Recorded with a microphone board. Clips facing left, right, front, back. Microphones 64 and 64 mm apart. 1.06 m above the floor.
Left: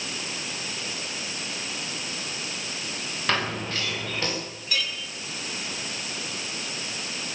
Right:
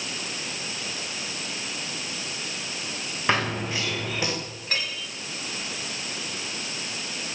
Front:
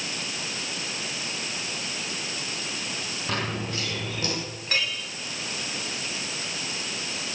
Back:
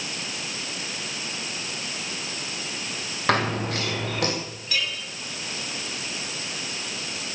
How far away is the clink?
About 6.5 m.